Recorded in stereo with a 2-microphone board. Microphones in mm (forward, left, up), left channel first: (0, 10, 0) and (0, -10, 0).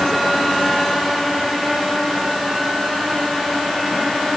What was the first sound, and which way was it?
Only background noise.